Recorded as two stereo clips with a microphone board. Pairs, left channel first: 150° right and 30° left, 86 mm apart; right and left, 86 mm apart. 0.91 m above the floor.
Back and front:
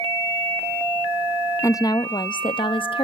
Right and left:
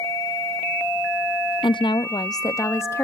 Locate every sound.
1.6 s a woman speaking: 95° right, 0.6 m; by 3.0 s 150° right, 1.0 m